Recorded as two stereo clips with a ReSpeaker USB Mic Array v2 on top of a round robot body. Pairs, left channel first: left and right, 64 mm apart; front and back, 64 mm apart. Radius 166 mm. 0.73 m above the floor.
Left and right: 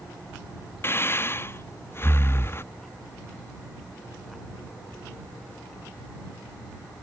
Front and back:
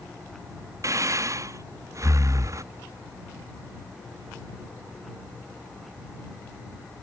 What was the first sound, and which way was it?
Breathing, 145° left.